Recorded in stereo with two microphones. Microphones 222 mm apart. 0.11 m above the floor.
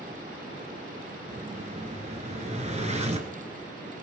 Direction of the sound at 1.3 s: 30° right (ahead or behind).